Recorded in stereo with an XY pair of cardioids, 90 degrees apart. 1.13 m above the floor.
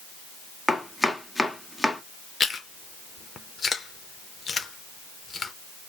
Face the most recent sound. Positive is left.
turn(degrees=40)